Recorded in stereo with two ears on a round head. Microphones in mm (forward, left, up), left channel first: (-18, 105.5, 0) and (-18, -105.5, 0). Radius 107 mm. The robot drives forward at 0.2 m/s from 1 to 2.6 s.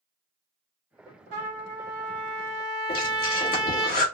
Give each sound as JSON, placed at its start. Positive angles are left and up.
{"t": 1.3, "sound": "a trumpet", "side_deg": -70, "distance_m": 1.5}
{"t": 2.9, "sound": "breathing", "side_deg": 40, "distance_m": 1.2}